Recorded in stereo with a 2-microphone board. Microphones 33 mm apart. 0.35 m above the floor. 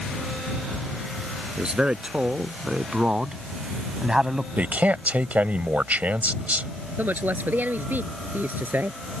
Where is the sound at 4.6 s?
55° right (ahead or behind).